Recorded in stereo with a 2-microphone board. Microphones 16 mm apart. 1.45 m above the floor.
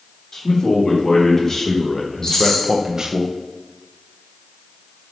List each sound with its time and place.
0.3 s a man speaking: 40° left (ahead or behind), 3.5 m; by 3.2 s 55° right (ahead or behind), 1.3 m
2.2 s a rattle: 30° left (ahead or behind), 3.5 m